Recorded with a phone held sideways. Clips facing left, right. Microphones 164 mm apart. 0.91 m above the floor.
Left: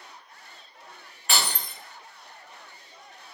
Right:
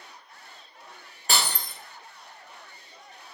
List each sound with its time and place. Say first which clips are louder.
1.3 s breaking glass: even; 35° right (ahead or behind), 0.6 m